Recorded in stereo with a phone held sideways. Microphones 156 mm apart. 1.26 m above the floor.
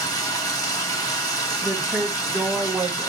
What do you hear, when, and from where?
0.0 s running water: 25° left (ahead or behind), 3 m
1.6 s a woman speaking: 15° right (ahead or behind), 1.7 m